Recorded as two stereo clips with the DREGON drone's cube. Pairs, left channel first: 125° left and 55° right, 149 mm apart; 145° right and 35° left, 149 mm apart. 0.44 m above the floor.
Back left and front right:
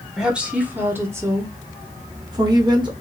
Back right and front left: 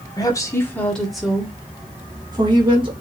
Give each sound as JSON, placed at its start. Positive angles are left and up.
{"t": 0.2, "sound": "a woman speaking", "azimuth_deg": -135, "distance_m": 1.1}